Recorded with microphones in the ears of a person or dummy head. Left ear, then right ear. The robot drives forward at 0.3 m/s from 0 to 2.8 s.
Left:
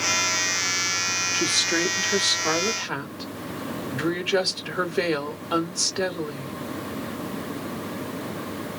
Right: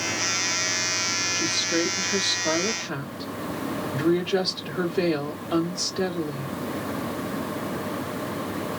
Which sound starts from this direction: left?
A woman speaking, at 1.3 s.